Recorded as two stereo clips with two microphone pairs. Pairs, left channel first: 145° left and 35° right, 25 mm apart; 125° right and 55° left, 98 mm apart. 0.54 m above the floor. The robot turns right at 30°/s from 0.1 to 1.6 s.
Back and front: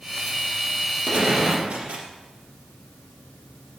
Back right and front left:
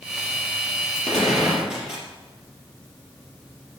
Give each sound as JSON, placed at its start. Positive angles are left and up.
{"t": 1.1, "sound": "a gunshot", "azimuth_deg": -45, "distance_m": 3.0}